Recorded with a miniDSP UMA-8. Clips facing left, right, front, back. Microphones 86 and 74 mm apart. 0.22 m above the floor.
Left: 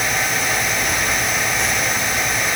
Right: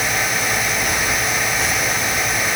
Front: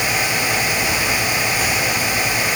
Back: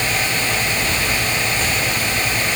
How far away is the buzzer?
No buzzer in this recording.